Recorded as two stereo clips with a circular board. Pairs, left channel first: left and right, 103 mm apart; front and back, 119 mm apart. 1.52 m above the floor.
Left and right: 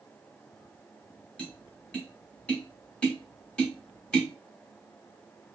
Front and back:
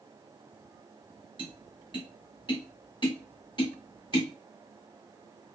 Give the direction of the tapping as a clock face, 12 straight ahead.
12 o'clock.